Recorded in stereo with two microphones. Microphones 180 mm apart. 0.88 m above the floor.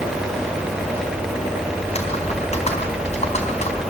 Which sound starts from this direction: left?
Typing on a keyboard, at 1.8 s.